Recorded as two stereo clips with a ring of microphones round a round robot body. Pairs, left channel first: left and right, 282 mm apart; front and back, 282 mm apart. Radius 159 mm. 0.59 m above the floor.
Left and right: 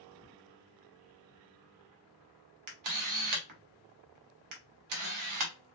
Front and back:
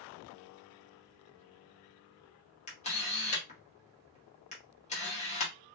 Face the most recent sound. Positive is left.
turn(degrees=-70)